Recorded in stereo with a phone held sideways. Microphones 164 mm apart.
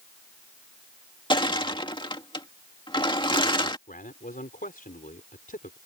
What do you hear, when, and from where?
1.3 s crushing: 30° left (ahead or behind)
3.9 s a man speaking: 60° left (ahead or behind)